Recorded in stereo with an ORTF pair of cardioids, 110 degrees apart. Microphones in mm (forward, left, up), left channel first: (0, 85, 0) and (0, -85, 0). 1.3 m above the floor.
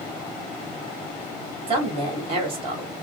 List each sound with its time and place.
1.7 s a woman speaking: 35° right, 2.5 m